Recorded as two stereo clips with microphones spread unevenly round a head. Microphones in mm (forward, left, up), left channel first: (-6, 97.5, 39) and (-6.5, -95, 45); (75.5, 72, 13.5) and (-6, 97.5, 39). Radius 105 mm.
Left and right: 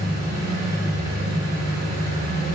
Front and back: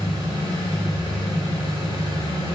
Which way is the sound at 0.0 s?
160° right.